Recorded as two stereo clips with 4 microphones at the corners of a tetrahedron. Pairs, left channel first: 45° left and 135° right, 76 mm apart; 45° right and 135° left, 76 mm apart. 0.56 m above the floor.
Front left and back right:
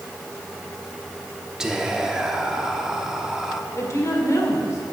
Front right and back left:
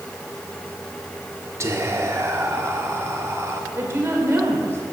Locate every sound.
1.6 s whispering: 145° left, 0.9 m
3.7 s a woman speaking: 85° left, 1.7 m